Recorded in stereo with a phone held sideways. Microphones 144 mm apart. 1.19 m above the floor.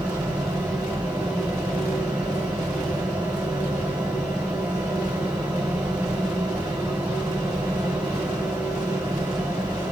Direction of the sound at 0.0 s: 15° right (ahead or behind).